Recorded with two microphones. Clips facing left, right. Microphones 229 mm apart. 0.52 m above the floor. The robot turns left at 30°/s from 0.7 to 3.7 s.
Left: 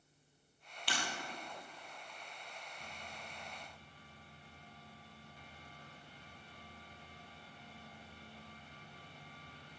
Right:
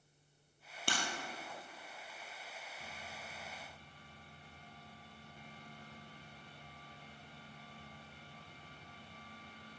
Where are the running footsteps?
I don't hear running footsteps.